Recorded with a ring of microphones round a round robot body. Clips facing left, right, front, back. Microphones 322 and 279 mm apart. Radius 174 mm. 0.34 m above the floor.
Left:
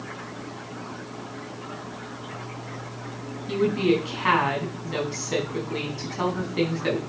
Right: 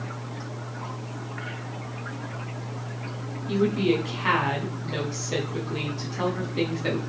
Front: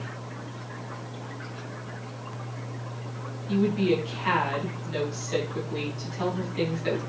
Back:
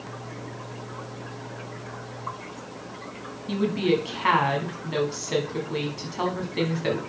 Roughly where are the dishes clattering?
I don't hear dishes clattering.